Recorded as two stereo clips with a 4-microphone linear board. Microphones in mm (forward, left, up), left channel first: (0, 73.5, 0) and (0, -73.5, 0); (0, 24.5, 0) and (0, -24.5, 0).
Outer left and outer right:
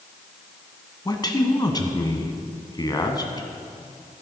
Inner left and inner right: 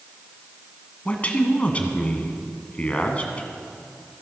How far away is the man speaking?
About 1.2 m.